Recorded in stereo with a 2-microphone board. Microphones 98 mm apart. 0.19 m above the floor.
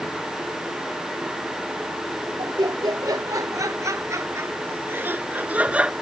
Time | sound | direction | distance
2.4 | laughter | 40° right (ahead or behind) | ?